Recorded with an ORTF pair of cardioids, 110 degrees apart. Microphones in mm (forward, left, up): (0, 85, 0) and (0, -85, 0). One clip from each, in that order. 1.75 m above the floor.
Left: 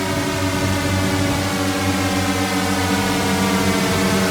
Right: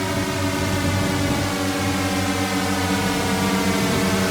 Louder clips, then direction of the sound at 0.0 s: Left 2 dB; 15° left.